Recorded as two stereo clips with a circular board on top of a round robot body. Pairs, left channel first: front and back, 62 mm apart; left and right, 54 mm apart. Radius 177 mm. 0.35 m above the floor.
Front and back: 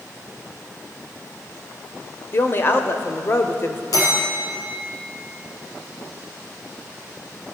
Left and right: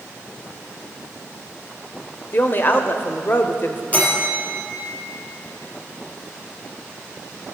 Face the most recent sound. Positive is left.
turn(degrees=30)